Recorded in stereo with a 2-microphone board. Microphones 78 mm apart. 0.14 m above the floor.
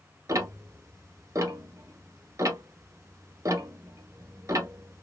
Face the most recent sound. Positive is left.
turn(degrees=-45)  # may be behind; listen again after turning